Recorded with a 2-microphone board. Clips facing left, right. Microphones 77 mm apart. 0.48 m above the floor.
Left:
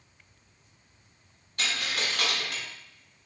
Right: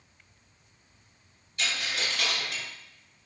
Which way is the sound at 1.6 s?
55° left (ahead or behind).